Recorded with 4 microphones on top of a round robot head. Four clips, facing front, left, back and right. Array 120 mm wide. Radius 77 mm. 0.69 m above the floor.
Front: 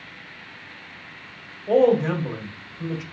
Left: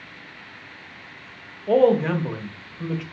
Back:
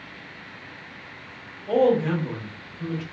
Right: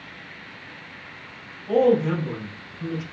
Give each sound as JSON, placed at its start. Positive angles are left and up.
{"t": 1.7, "sound": "a man speaking", "azimuth_deg": 65, "distance_m": 1.0}